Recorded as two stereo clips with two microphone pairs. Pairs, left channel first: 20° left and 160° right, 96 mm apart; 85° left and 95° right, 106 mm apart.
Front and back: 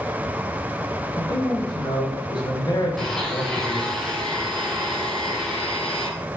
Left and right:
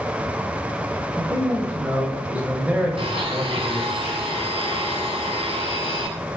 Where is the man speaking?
20° right, 4.5 m.